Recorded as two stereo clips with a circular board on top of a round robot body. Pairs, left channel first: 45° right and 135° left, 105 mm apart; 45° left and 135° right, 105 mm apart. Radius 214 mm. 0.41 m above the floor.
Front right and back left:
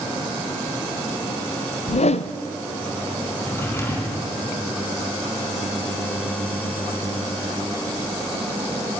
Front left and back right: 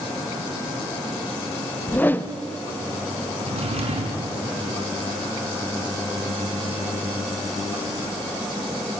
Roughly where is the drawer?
Behind right.